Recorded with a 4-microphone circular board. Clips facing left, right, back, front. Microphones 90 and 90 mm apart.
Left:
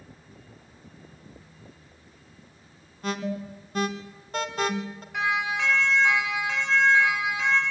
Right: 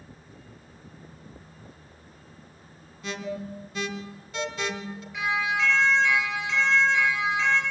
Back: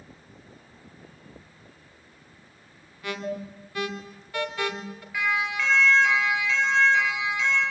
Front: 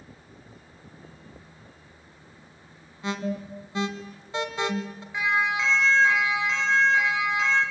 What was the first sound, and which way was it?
An alarm, 65° left.